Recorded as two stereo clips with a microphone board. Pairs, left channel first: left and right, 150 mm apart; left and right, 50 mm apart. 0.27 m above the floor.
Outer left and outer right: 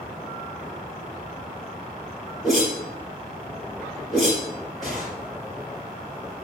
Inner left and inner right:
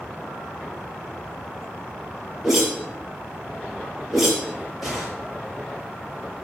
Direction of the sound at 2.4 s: Centre (ahead or behind).